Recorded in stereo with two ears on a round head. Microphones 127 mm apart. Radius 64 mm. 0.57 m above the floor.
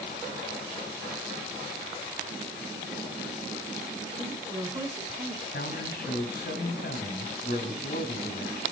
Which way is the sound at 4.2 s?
10° right (ahead or behind).